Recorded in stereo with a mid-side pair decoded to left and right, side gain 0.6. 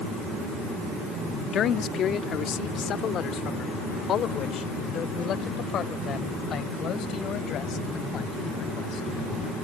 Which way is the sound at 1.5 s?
50° left.